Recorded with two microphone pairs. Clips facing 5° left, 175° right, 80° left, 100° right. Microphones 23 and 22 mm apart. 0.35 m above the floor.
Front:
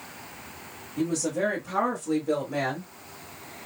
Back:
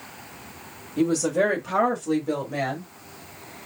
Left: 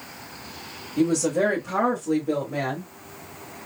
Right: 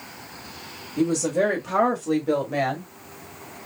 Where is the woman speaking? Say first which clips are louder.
Back 5 dB, even; 170° left, 1.6 m; by 2.9 s 85° right, 2.5 m.